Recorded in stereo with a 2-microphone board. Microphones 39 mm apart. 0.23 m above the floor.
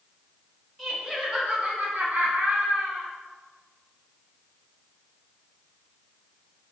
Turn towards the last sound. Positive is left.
turn(degrees=-60)  # may be behind; listen again after turning